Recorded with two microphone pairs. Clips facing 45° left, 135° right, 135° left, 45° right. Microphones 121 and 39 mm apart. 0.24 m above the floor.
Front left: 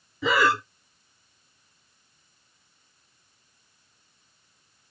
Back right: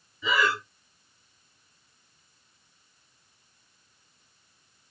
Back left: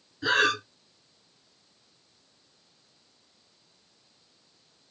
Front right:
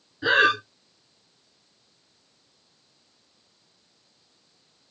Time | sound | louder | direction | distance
0.2 | breathing | front left 4 dB, front right 4 dB | 30° left | 0.6 m